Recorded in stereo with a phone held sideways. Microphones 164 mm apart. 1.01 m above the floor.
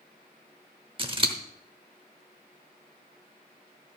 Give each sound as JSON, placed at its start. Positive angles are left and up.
{"t": 1.0, "sound": "scissors", "side_deg": -35, "distance_m": 1.0}